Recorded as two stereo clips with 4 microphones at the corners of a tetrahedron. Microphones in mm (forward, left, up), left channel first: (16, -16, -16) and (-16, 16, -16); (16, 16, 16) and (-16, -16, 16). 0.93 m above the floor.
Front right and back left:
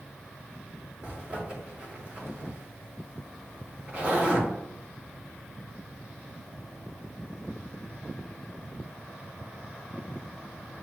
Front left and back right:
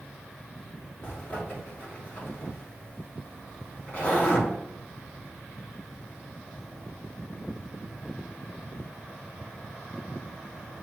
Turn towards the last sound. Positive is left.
turn(degrees=85)